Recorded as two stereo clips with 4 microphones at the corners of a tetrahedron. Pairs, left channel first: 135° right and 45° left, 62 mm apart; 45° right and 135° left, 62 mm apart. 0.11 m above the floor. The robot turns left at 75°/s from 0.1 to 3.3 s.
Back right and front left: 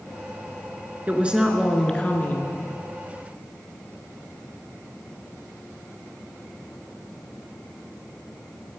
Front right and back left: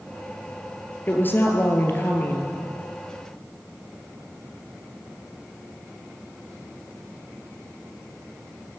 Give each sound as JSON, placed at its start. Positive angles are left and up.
{"t": 1.1, "sound": "a woman speaking", "azimuth_deg": -5, "distance_m": 1.9}